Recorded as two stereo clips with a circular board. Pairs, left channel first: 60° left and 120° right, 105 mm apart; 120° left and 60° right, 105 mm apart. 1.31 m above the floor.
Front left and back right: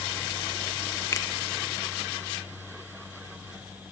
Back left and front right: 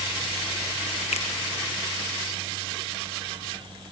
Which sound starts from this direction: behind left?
A finger snap, at 1.1 s.